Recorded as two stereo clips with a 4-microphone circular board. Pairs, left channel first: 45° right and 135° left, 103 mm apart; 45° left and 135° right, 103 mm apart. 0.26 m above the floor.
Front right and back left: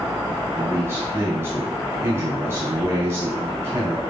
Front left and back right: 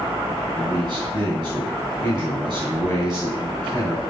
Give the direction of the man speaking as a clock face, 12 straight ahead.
5 o'clock.